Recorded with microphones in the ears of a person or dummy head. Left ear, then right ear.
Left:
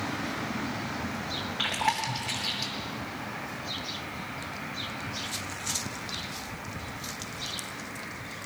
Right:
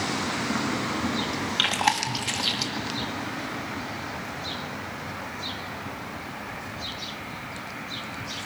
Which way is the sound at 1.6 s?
80° right.